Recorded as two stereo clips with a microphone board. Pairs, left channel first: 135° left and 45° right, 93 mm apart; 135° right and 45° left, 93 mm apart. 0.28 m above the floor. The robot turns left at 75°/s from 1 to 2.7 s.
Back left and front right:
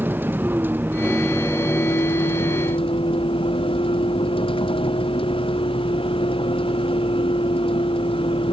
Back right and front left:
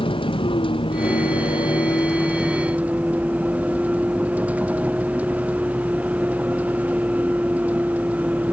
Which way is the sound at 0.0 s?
115° right.